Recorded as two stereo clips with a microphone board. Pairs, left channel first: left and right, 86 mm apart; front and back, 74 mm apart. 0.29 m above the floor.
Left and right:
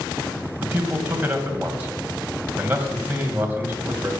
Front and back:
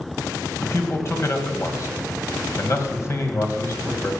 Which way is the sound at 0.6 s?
30° right.